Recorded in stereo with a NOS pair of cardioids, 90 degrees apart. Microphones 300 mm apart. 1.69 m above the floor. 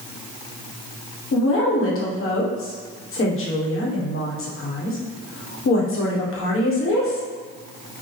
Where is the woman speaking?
45° left, 1.4 m.